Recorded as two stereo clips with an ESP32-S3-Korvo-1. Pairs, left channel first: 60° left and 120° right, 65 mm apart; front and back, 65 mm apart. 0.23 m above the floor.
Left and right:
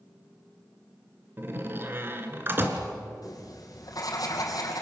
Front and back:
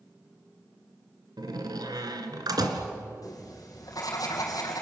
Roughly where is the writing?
Ahead left.